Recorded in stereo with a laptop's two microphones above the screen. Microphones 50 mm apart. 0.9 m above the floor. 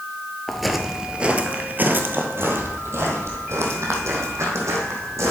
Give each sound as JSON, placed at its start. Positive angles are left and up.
{"t": 0.5, "sound": "footsteps", "side_deg": 5, "distance_m": 0.9}